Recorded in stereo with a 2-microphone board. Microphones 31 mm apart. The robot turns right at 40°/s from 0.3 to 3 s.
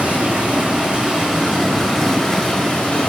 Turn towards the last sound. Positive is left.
turn(degrees=35)